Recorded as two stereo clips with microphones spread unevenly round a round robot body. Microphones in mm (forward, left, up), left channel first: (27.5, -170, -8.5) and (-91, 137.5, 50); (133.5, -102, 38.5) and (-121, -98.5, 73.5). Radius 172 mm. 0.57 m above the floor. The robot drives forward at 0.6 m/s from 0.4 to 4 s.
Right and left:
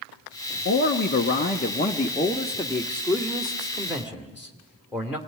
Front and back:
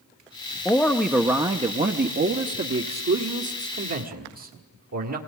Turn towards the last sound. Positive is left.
turn(degrees=-160)